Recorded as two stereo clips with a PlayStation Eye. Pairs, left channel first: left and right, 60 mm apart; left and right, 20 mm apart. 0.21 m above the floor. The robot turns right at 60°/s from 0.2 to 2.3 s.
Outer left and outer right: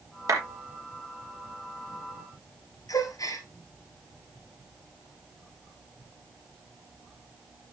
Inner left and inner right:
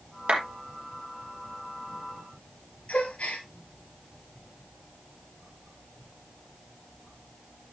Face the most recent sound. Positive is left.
turn(degrees=75)  # may be behind; listen again after turning